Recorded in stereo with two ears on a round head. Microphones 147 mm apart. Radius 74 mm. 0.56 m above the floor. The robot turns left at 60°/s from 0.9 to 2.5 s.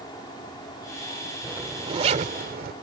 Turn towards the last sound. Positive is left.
turn(degrees=-70)